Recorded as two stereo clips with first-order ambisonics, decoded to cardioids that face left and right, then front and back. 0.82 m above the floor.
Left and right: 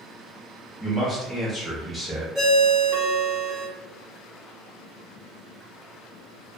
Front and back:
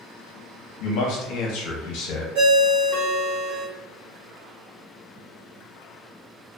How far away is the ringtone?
About 1.0 m.